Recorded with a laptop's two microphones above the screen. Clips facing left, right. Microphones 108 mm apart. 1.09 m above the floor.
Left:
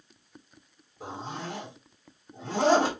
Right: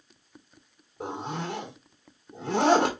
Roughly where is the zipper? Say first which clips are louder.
Right 4 dB; right.